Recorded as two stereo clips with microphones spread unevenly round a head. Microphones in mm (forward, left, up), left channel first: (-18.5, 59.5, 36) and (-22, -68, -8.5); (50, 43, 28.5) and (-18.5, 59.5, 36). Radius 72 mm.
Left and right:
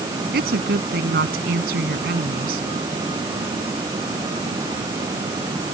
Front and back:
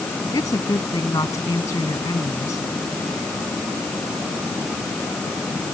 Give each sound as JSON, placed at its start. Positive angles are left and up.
{"t": 0.3, "sound": "a woman speaking", "azimuth_deg": -75}